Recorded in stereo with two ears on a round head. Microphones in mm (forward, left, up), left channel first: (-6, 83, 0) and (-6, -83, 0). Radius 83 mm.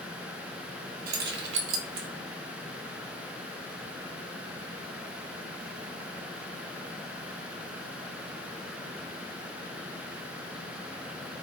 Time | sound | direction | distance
1.1 | keys jangling | 50° right (ahead or behind) | 0.7 m